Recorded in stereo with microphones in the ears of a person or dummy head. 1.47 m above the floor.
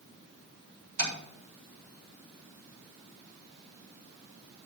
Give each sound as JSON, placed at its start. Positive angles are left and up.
{"t": 1.0, "sound": "tapping", "side_deg": -70, "distance_m": 4.5}